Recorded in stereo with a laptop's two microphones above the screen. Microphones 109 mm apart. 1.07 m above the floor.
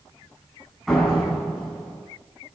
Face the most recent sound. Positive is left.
turn(degrees=0)  # may be behind; listen again after turning